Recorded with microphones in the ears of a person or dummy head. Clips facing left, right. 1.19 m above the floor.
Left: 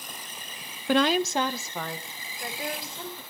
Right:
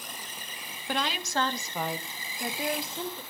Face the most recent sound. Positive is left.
turn(degrees=-30)  # may be behind; listen again after turning